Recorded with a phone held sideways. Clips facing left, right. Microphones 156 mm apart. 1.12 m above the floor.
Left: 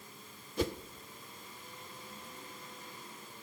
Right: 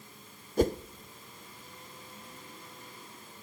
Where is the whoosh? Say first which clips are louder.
Right 8 dB; 50° right (ahead or behind), 0.5 m.